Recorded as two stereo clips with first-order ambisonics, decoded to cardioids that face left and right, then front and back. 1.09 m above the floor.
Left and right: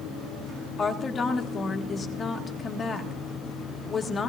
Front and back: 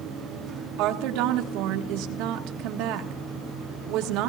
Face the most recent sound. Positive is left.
turn(degrees=155)